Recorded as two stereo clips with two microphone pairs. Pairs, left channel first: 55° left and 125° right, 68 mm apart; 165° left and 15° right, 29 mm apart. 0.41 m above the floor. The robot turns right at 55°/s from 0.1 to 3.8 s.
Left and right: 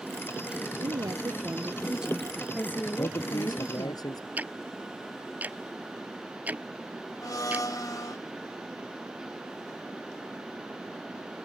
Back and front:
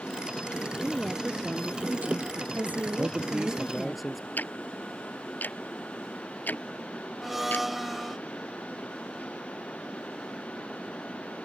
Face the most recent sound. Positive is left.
turn(degrees=65)